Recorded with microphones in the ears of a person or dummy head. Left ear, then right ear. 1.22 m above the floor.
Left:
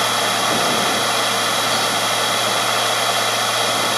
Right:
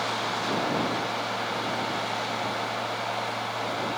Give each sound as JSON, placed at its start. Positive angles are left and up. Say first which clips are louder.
{"t": 0.0, "sound": "a machine running", "louder": "left 10 dB", "side_deg": 80}